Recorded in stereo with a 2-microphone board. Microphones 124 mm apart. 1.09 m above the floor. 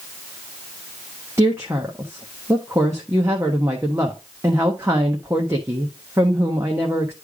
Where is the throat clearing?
No throat clearing in this recording.